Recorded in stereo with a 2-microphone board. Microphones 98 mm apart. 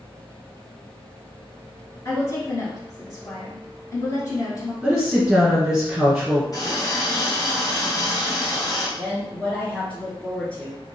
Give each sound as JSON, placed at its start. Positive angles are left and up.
{"t": 2.0, "sound": "a woman speaking", "side_deg": 35, "distance_m": 1.6}
{"t": 4.8, "sound": "a woman speaking", "side_deg": -10, "distance_m": 1.6}
{"t": 6.5, "sound": "a running tap", "side_deg": 35, "distance_m": 1.7}
{"t": 9.0, "sound": "a woman speaking", "side_deg": 15, "distance_m": 1.4}